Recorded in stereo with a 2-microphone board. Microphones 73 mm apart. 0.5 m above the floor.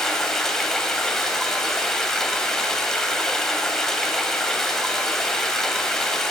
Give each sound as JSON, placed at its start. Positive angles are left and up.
{"t": 0.0, "sound": "running water", "side_deg": 10, "distance_m": 0.9}